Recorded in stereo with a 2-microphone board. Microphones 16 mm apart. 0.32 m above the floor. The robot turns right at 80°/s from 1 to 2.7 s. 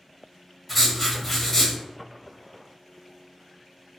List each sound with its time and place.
0.7 s writing: 15° right, 1.1 m; by 1.8 s 50° left, 1.1 m